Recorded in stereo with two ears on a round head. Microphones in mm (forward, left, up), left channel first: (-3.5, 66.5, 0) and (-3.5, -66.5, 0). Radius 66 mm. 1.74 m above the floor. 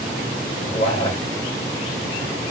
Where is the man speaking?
40° left (ahead or behind), 2 m.